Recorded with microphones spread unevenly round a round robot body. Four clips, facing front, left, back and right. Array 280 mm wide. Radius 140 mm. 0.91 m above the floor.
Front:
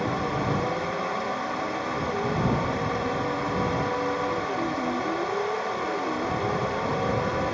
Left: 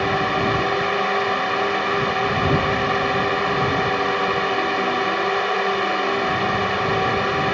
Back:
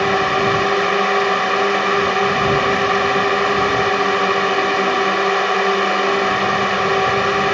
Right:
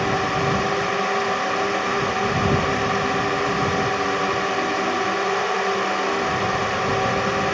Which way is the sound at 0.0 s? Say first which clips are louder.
Left 1 dB, back 10 dB; straight behind.